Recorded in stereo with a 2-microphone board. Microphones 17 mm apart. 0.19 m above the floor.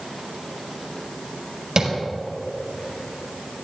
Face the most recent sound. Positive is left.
turn(degrees=-35)  # may be behind; listen again after turning